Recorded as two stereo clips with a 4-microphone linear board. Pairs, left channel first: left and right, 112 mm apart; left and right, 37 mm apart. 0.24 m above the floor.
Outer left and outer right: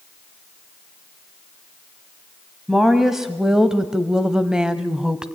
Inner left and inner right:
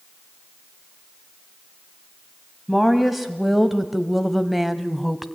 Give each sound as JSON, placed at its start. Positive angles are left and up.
{"t": 2.7, "sound": "a woman speaking", "side_deg": -5, "distance_m": 1.5}